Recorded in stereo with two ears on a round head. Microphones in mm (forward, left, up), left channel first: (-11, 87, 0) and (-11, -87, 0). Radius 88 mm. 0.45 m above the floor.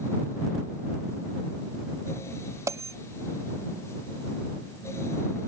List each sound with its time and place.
2.7 s a bell: 15° right (ahead or behind)